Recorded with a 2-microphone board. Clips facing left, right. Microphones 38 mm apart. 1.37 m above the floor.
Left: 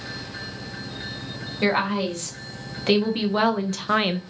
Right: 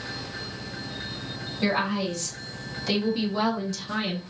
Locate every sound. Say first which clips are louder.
1.6 s a woman speaking: left 3 dB; 35° left (ahead or behind), 1.7 m; by 4.2 s 55° left (ahead or behind), 0.5 m